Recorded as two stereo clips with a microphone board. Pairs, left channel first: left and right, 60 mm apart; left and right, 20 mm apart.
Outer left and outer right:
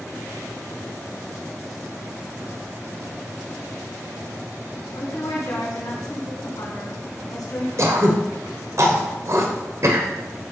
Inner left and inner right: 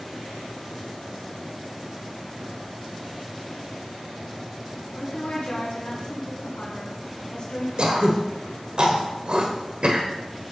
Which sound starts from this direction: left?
A woman speaking, at 5.0 s.